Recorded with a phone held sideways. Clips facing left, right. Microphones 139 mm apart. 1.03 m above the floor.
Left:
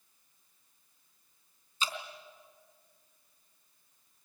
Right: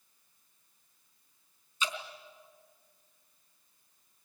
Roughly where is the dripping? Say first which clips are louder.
Right 1 dB; left.